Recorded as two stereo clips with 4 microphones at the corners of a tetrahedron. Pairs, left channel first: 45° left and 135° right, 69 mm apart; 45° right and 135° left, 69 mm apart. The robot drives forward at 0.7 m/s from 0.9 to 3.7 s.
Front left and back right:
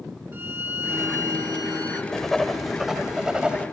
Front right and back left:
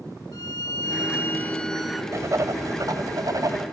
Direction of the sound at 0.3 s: 75° right.